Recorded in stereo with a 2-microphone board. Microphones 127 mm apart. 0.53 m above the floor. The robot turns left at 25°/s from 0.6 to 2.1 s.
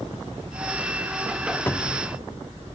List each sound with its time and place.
1.7 s a cupboard door: 20° left (ahead or behind), 0.9 m